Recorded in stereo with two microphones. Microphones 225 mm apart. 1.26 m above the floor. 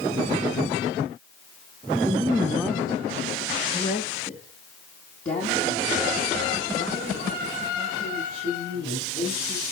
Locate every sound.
2.0 s a woman speaking: 20° right (ahead or behind), 0.5 m; by 9.6 s 40° left (ahead or behind), 5 m